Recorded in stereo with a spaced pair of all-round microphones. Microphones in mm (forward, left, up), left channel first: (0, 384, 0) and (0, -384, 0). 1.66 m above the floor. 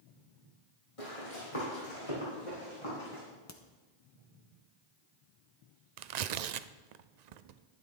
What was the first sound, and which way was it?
Running footsteps, 40° left (ahead or behind).